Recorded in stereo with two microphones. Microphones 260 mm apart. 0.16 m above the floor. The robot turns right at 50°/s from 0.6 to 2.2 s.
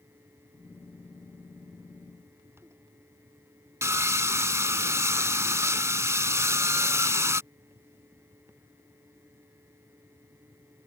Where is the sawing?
10° right (ahead or behind).